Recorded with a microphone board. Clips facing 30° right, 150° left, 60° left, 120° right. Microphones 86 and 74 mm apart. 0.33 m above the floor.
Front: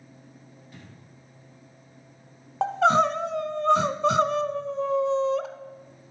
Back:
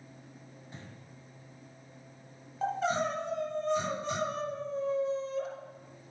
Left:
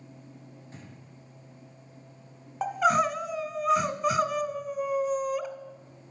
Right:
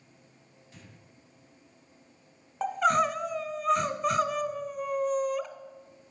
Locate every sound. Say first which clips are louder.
0.7 s breathing: even, left 3 dB; 95° left, 1.2 m
2.6 s crying: front 10 dB, left 1 dB; 25° right, 0.6 m